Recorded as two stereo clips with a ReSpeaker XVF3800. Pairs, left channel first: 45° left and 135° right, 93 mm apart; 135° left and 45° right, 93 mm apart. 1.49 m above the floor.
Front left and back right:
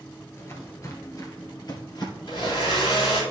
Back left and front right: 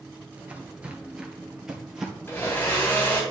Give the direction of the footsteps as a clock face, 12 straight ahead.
12 o'clock.